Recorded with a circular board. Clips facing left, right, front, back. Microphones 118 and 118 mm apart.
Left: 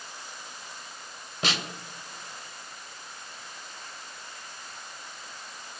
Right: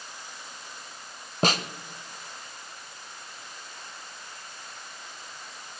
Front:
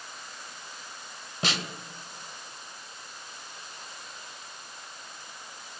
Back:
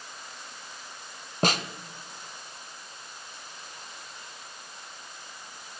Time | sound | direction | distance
1.4 | a snare drum | 135° right | 0.6 m